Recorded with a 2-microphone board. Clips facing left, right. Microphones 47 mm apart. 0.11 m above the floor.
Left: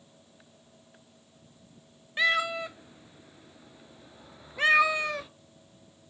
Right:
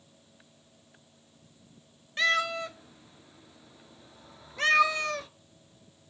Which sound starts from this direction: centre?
A cat meowing, at 2.2 s.